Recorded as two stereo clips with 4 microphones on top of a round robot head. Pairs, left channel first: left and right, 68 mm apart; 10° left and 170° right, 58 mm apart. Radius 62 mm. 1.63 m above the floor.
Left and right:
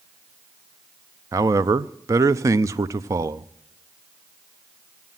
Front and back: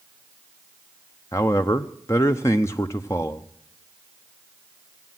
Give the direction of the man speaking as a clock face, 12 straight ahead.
1 o'clock.